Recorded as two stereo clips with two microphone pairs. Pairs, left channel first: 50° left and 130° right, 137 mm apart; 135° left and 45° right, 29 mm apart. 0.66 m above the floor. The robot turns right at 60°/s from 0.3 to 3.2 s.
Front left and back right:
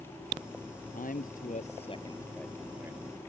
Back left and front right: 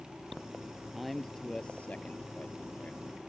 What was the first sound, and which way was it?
A man speaking, 40° left.